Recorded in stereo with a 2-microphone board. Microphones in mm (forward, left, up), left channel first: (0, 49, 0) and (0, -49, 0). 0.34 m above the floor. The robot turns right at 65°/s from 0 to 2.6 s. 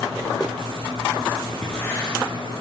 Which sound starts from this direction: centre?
Writing, at 1.6 s.